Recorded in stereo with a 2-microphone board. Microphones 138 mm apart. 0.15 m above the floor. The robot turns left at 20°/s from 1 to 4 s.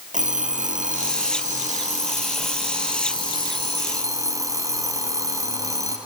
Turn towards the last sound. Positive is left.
turn(degrees=-155)